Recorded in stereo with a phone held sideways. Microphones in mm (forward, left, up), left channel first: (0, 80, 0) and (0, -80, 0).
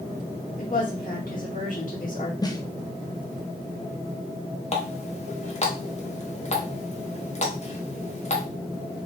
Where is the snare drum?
25° left (ahead or behind), 0.7 m.